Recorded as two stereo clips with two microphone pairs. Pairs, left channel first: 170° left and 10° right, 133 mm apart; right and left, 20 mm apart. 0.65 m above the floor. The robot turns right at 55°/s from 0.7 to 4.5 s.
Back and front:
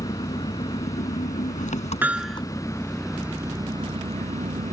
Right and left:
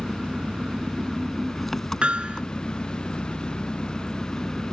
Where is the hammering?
65° left; by 2.4 s 90° left.